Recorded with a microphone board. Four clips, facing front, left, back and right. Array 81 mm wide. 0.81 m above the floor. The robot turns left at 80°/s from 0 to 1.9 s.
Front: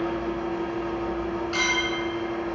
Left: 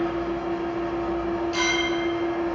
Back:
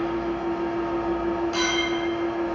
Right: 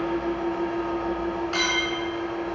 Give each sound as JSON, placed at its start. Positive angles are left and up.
{"t": 0.0, "sound": "an engine running", "azimuth_deg": -65, "distance_m": 1.8}
{"t": 1.5, "sound": "a clink", "azimuth_deg": -70, "distance_m": 1.2}